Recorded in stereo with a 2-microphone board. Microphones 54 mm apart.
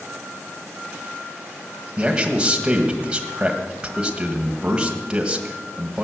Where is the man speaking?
20° right (ahead or behind), 1.6 m.